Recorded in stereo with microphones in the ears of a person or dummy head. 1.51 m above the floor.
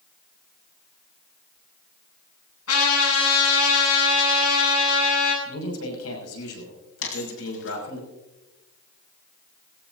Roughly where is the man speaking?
Left.